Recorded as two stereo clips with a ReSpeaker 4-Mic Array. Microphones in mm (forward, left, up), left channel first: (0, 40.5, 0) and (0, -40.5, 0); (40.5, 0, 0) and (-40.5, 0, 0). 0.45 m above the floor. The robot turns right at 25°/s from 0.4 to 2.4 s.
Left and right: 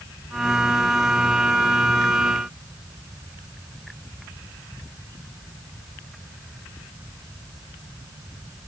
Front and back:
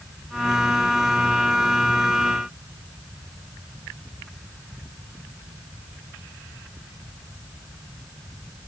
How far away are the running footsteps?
I don't hear running footsteps.